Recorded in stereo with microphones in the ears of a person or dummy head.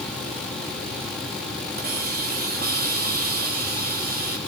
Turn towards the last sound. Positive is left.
turn(degrees=-50)  # may be behind; listen again after turning